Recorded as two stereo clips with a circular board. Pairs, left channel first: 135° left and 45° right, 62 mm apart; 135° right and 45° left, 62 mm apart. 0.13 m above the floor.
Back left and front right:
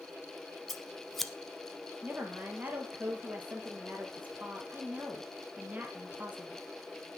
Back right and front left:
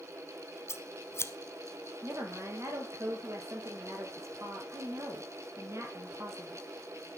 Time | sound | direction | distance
0.7 | scissors | 140° right | 0.9 m
2.0 | a woman speaking | 15° left | 3 m